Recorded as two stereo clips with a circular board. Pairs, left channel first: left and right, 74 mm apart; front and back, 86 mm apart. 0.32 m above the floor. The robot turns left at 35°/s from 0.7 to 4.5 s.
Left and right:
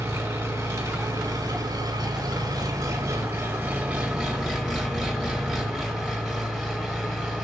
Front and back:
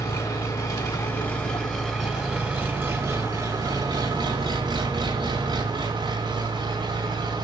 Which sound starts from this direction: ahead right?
An engine running, at 0.0 s.